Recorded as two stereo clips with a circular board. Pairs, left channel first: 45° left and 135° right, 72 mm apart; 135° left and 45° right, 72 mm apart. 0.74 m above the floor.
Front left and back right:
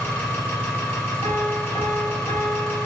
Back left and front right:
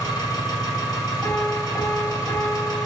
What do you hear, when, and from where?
0.0 s an engine running: 105° left, 1.5 m
1.2 s a piano: 60° left, 2 m